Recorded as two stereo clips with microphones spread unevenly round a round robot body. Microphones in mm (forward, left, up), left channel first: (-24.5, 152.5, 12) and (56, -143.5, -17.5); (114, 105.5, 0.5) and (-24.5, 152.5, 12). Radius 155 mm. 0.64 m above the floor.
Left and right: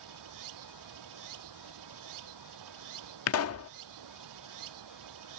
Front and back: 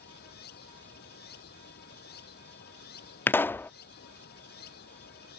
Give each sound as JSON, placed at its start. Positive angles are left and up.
{"t": 0.0, "sound": "running water", "azimuth_deg": -50}
{"t": 3.3, "sound": "a pop", "azimuth_deg": 60}